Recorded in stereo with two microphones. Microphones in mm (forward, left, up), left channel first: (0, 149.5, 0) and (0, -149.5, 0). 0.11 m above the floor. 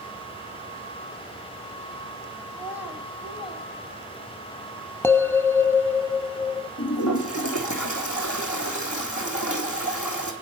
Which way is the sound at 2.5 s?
10° right (ahead or behind).